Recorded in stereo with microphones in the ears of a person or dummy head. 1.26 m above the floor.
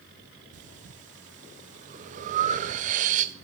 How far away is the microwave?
I don't hear a microwave.